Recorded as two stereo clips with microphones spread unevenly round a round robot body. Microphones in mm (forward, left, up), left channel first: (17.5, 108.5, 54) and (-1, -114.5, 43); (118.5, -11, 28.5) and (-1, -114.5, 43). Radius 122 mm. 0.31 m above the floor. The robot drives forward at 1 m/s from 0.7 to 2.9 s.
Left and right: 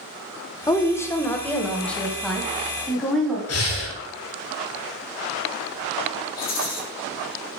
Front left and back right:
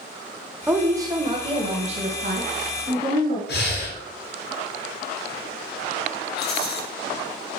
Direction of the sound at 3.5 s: 65° left.